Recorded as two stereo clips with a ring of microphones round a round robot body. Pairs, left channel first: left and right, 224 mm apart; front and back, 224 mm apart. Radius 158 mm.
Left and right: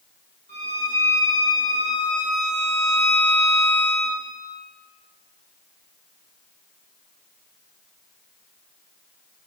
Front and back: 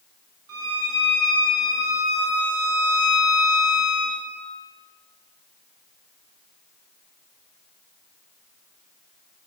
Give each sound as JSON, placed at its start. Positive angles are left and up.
{"t": 0.5, "sound": "a violin", "azimuth_deg": 160, "distance_m": 2.0}